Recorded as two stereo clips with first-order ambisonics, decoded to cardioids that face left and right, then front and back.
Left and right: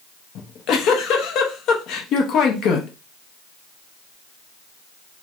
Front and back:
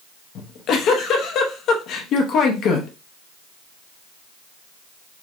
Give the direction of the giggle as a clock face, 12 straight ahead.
10 o'clock.